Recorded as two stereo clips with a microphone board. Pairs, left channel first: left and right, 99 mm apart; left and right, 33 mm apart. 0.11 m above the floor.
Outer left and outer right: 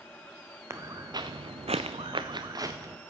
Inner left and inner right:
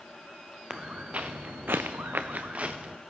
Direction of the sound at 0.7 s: 30° right (ahead or behind).